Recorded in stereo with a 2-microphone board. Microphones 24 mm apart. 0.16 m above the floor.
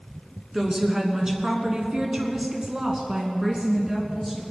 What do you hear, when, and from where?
0.5 s a woman speaking: 25° right (ahead or behind), 2.5 m; by 4.4 s 30° right (ahead or behind), 2.5 m